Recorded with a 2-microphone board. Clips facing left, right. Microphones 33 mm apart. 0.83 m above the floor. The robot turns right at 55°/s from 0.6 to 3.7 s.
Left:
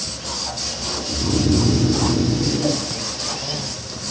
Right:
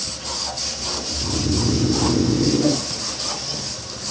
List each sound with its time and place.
1.1 s snoring: 145° left, 0.8 m; by 2.9 s 115° right, 0.8 m